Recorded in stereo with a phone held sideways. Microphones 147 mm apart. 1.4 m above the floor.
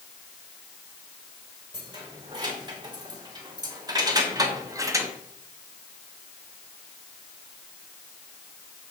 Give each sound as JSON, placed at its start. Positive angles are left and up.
{"t": 1.7, "sound": "keys jangling", "side_deg": -30, "distance_m": 3.5}